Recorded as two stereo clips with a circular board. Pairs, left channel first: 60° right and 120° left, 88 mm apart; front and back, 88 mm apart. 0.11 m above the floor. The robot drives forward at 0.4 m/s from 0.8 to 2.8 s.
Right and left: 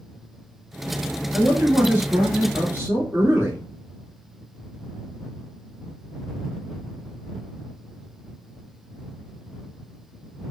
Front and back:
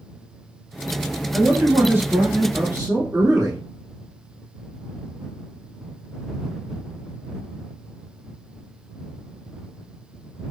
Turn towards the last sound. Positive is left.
turn(degrees=170)